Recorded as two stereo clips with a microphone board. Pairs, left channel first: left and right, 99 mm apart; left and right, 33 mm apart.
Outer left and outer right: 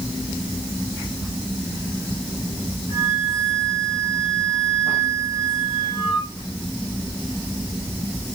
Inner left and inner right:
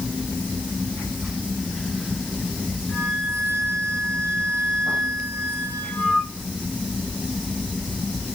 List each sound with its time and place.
2.9 s a flute: 45° left (ahead or behind), 5.5 m